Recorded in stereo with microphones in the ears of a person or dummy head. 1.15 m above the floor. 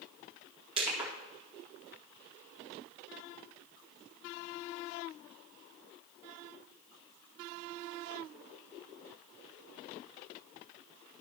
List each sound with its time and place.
0.8 s crushing: 30° right (ahead or behind), 2.0 m